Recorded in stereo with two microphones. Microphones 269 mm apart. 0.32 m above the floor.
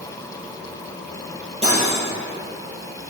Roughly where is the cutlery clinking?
Right.